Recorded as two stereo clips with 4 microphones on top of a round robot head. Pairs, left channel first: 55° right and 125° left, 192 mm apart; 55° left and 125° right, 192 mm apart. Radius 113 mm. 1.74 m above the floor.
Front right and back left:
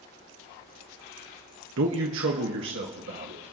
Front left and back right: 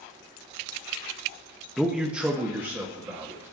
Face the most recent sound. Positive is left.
turn(degrees=160)